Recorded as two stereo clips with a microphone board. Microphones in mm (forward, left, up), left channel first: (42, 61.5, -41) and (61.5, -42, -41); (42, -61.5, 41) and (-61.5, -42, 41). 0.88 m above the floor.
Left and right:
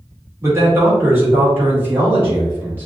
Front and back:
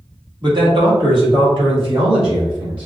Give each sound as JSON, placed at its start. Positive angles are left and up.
{"t": 0.4, "sound": "a man speaking", "azimuth_deg": -145, "distance_m": 1.6}